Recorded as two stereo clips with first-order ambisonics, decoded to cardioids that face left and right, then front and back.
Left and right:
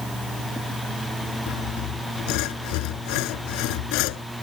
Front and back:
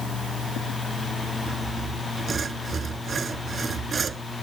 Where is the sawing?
110° left.